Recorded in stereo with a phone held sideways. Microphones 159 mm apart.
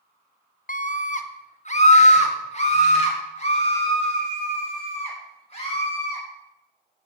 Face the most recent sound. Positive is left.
turn(degrees=40)  # may be behind; listen again after turning